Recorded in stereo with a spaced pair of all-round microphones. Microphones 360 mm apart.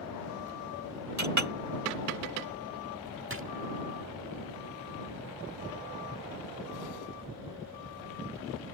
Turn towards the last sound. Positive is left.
turn(degrees=-35)  # may be behind; listen again after turning